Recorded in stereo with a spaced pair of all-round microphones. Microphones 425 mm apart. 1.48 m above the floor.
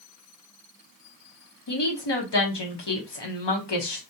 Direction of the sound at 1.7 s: 70° left (ahead or behind).